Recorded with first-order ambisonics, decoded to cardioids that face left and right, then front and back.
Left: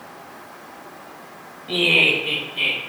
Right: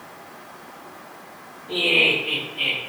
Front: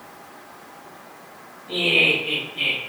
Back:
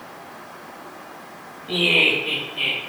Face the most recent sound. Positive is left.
turn(degrees=90)